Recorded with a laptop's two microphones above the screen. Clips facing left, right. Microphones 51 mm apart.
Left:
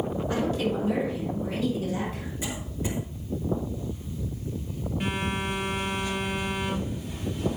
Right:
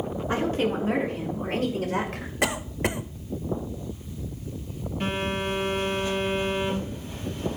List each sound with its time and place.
0.3 s a woman speaking: 30° right (ahead or behind), 1.9 m; by 2.3 s 65° right (ahead or behind), 2.0 m
2.4 s a cough: 70° right (ahead or behind), 0.8 m
5.0 s a phone buzzing: 5° left (ahead or behind), 3 m